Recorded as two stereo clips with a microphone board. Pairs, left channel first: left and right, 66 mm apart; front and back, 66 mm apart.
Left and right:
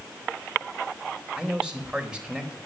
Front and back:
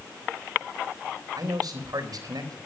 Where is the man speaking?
165° right, 3.5 m.